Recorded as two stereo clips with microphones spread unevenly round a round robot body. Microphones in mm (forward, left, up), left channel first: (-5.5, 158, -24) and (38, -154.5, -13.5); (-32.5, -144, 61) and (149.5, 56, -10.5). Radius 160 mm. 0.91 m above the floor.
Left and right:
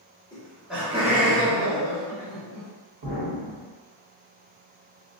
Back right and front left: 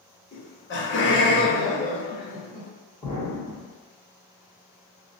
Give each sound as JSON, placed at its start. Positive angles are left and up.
{"t": 0.3, "sound": "laughter", "azimuth_deg": 170, "distance_m": 0.7}
{"t": 3.0, "sound": "an explosion", "azimuth_deg": -60, "distance_m": 1.5}